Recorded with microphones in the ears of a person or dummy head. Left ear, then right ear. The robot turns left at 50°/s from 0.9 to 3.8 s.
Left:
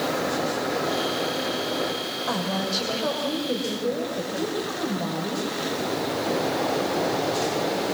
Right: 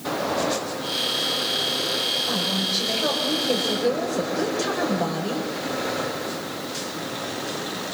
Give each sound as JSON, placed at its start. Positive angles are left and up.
{"t": 2.3, "sound": "a woman speaking", "azimuth_deg": 30, "distance_m": 7.5}